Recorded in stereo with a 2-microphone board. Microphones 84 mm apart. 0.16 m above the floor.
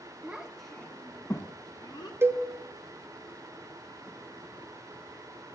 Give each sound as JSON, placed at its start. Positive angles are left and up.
{"t": 0.2, "sound": "a child speaking", "side_deg": -20, "distance_m": 1.3}
{"t": 2.2, "sound": "a cowbell", "side_deg": -30, "distance_m": 1.0}